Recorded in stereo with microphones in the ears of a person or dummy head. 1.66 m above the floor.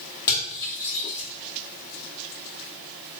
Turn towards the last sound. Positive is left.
turn(degrees=20)  # may be behind; listen again after turning